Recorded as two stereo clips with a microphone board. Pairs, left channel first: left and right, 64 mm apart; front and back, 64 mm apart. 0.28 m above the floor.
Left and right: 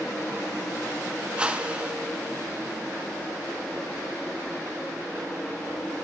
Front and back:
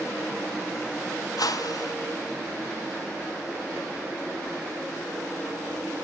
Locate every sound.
1.4 s a whoosh: 15° right, 0.7 m